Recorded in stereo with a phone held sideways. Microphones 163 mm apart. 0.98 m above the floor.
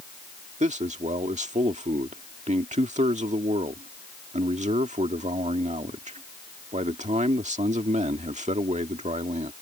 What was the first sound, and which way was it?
A man speaking, 45° right (ahead or behind).